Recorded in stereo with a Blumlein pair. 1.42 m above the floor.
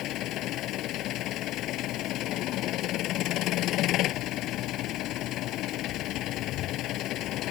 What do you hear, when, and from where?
0.0 s an engine running: 35° left